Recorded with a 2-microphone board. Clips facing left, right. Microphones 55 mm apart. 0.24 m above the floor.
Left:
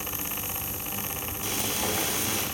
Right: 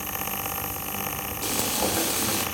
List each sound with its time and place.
1.4 s frying: 70° right (ahead or behind), 2.5 m